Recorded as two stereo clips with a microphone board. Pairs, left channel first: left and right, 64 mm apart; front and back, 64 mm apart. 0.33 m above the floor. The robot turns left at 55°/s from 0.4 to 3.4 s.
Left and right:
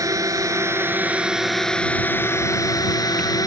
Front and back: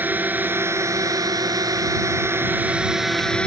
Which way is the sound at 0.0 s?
120° right.